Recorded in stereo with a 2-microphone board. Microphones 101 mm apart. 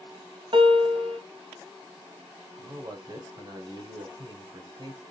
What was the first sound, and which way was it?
A piano, 55° right (ahead or behind).